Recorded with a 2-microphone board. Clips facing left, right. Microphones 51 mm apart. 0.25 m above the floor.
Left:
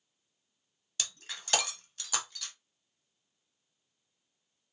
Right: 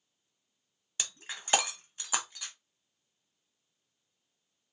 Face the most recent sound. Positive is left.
turn(degrees=-20)  # may be behind; listen again after turning